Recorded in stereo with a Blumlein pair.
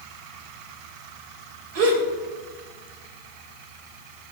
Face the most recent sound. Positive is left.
turn(degrees=-50)